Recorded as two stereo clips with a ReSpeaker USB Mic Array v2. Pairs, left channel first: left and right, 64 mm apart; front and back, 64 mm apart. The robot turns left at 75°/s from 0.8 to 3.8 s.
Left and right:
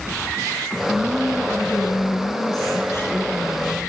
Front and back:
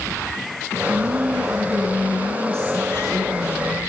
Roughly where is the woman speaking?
Behind right.